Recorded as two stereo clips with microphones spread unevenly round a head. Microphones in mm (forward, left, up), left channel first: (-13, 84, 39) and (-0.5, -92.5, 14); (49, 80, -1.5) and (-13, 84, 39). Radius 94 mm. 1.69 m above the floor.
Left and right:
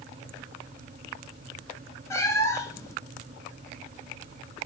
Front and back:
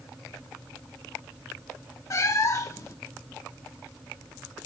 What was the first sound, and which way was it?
A cat meowing, 60° left.